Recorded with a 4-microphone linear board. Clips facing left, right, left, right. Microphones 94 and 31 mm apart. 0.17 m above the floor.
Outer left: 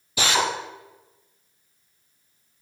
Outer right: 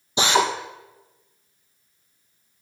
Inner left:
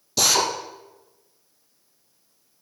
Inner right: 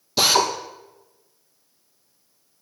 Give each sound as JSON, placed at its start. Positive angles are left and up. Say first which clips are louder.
{"t": 0.2, "sound": "a drill", "louder": "outer right 3 dB, inner right 2 dB", "side_deg": -25, "distance_m": 2.5}